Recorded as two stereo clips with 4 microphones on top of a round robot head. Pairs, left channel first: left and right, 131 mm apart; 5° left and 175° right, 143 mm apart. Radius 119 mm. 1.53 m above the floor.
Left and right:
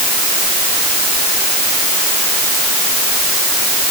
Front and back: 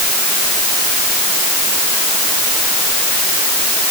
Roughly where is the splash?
I don't hear a splash.